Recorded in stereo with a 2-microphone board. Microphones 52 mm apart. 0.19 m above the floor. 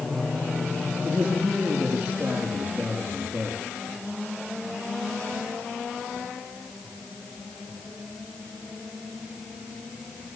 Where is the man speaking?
30° right (ahead or behind), 6.5 m.